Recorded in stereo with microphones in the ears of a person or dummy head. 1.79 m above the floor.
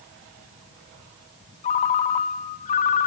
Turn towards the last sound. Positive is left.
turn(degrees=30)  # may be behind; listen again after turning